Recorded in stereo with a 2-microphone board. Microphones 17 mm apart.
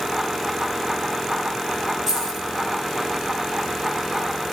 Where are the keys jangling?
20° right (ahead or behind), 4.5 m.